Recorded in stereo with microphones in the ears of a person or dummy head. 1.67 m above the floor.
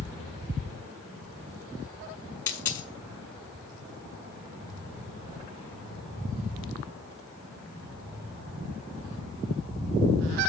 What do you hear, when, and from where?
2.5 s a dropped coin: 15° left (ahead or behind), 1.4 m